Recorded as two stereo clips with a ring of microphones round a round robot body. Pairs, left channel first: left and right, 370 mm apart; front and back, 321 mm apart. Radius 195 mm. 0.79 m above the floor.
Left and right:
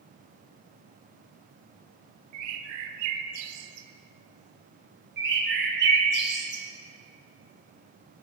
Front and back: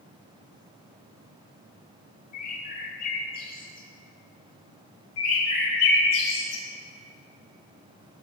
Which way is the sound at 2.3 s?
70° right.